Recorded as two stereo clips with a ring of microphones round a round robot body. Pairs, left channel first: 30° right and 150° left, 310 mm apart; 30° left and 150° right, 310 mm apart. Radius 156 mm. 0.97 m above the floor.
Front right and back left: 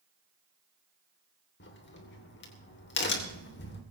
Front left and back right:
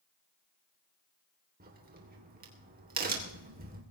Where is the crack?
85° right, 3 m.